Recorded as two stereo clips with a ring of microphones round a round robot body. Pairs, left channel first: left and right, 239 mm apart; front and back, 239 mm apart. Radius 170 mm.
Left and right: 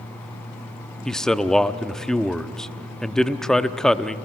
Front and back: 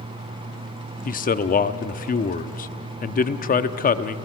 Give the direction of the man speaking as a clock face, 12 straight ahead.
12 o'clock.